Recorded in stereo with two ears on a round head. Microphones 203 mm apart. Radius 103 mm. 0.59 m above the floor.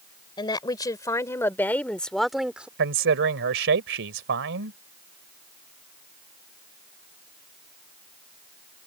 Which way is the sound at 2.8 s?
60° right (ahead or behind).